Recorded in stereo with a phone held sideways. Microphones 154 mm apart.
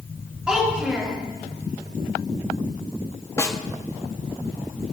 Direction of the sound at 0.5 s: 5° right (ahead or behind).